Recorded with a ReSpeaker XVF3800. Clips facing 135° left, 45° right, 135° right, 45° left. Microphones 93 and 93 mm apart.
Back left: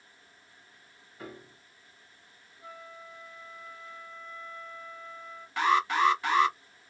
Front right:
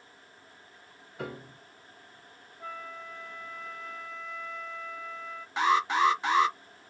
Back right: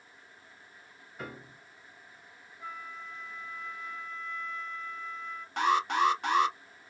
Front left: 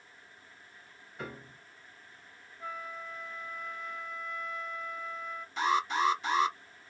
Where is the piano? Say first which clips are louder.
Front right 6 dB, even; 50° right, 0.7 m.